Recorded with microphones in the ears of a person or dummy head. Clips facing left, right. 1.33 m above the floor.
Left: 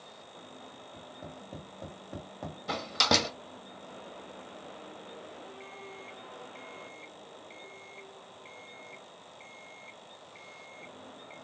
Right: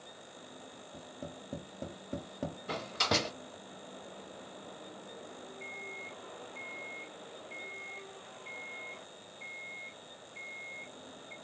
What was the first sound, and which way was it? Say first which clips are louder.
Tapping: right 2 dB; 25° right (ahead or behind).